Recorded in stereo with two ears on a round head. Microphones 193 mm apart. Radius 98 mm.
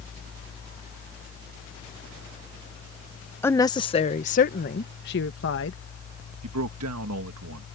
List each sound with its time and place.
3.4 s a woman speaking: 10° left (ahead or behind); by 5.8 s 60° left (ahead or behind)
6.4 s a man speaking: 75° right (ahead or behind)